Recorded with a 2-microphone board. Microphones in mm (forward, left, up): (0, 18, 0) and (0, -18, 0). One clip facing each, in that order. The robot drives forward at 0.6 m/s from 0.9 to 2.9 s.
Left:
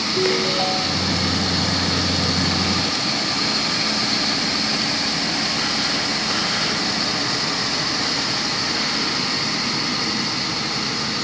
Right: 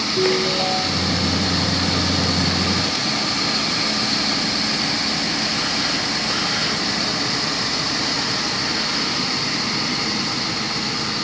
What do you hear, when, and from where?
0.1 s a ringtone: 25° left (ahead or behind), 2 m